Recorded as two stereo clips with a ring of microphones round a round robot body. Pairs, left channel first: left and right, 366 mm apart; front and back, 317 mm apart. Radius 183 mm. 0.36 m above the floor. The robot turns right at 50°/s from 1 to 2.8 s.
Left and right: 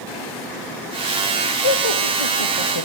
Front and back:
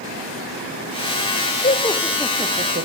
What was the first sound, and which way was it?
Laughter, 60° left.